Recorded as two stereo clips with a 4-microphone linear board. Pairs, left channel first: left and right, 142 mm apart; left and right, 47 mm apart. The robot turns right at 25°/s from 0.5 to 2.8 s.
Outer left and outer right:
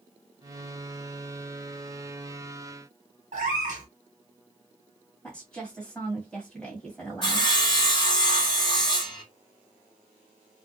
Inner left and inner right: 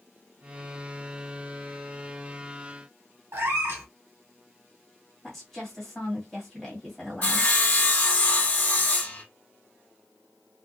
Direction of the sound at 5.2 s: 5° left (ahead or behind).